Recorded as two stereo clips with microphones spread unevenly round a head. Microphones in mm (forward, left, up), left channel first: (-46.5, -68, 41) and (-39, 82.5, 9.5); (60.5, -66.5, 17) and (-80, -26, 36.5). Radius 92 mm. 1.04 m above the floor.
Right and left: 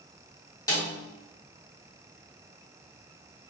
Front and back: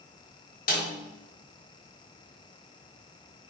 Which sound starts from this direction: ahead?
A snare drum, at 0.7 s.